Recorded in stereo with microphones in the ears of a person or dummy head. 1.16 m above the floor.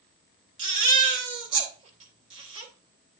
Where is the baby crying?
35° right (ahead or behind), 1.3 m.